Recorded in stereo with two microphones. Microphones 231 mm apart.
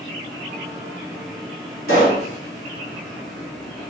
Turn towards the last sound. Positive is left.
turn(degrees=75)  # may be behind; listen again after turning